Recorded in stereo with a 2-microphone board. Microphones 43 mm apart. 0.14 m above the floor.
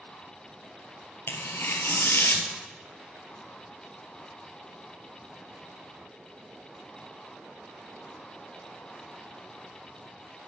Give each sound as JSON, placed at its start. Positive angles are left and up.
{"t": 1.3, "sound": "tearing paper", "side_deg": 70, "distance_m": 0.9}